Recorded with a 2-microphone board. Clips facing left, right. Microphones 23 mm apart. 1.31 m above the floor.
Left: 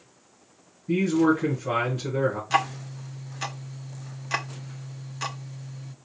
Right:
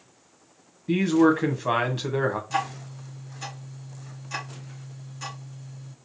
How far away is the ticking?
About 0.6 m.